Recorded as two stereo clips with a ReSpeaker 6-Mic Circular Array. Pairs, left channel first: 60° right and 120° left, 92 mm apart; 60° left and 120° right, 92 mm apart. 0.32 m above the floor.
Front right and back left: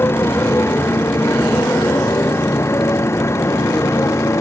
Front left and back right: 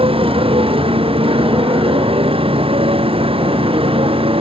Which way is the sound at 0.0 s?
125° right.